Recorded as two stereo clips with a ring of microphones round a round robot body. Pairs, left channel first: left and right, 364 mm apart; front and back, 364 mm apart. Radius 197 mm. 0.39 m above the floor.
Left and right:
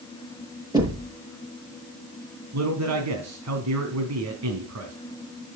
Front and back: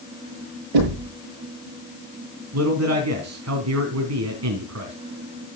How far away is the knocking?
About 8.5 m.